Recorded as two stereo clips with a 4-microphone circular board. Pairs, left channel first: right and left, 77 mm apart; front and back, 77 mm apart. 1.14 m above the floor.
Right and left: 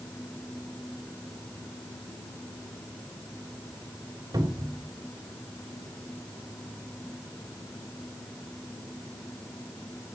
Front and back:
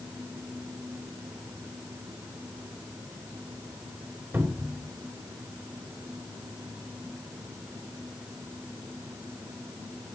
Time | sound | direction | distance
4.3 | a cupboard door | 120° left | 3 m